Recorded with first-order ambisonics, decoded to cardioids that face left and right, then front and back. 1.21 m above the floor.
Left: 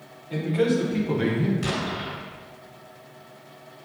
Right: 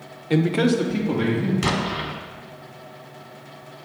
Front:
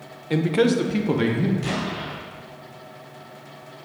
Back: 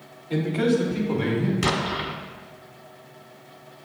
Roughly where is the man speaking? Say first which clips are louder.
Right 3 dB, front 3 dB; ahead right.